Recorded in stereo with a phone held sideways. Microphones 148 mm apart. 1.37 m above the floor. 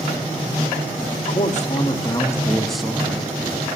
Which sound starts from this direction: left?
A man speaking, at 1.1 s.